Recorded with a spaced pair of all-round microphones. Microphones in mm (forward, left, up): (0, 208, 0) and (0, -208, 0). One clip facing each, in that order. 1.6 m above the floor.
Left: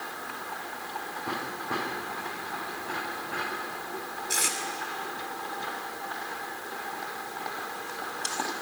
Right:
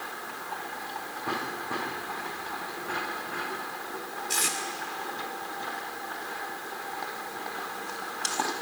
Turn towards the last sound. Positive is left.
turn(degrees=-10)  # may be behind; listen again after turning